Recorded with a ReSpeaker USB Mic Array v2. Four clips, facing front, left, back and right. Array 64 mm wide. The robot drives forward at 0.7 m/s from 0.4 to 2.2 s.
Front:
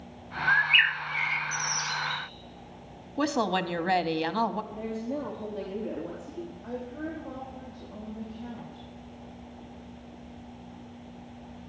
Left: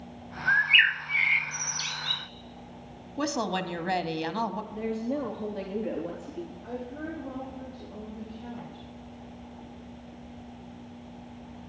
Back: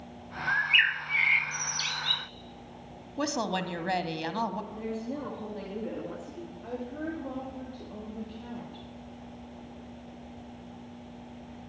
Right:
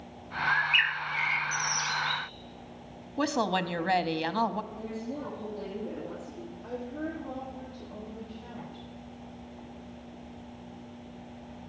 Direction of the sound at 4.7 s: 90° left.